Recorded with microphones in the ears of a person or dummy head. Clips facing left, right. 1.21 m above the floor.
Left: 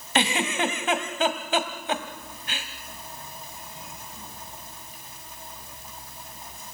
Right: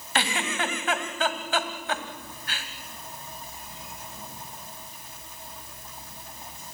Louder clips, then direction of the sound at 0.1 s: Left 4 dB; 25° left (ahead or behind).